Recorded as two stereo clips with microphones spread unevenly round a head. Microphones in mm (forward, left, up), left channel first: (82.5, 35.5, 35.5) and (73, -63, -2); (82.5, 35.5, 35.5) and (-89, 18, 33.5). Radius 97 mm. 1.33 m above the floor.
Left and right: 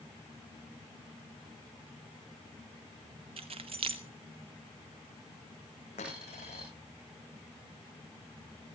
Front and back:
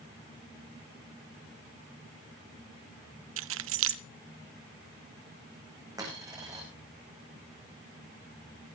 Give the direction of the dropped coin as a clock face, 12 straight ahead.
8 o'clock.